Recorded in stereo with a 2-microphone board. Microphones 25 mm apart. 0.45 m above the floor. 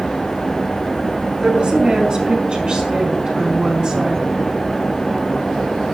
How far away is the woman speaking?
About 6 m.